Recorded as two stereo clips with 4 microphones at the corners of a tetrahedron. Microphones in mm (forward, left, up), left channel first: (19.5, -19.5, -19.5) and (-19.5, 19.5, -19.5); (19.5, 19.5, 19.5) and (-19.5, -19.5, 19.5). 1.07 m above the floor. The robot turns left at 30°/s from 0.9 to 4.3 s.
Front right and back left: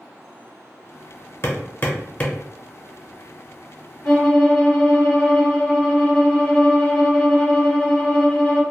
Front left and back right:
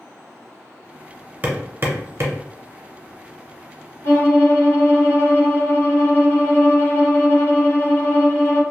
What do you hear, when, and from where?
1.4 s hammering: 80° right, 0.6 m; by 2.4 s 110° right, 0.6 m
4.0 s a violin: 25° left, 1.7 m; by 8.6 s 15° left, 1.7 m